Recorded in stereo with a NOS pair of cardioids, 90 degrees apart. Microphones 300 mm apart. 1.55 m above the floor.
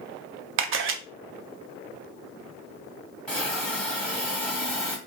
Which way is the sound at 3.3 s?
5° left.